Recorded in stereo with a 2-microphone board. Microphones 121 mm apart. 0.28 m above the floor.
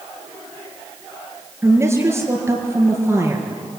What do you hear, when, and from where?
1.6 s a woman speaking: 20° right (ahead or behind), 4 m